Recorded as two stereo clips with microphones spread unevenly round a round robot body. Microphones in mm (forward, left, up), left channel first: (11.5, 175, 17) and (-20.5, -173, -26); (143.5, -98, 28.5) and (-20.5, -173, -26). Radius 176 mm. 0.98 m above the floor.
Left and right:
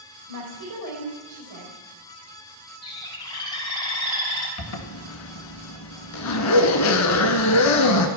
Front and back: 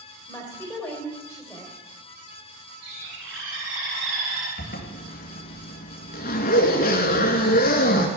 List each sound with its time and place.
0.3 s a woman speaking: 55° right, 4 m
2.8 s a bird: 165° left, 3.5 m
4.6 s a zipper: 50° left, 1.8 m